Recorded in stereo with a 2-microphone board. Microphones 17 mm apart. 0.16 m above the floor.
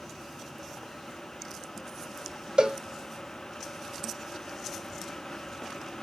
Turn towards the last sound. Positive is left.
turn(degrees=-55)  # may be behind; listen again after turning